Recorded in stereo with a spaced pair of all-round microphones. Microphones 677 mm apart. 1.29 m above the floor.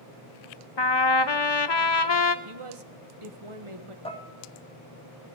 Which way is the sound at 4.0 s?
10° left (ahead or behind).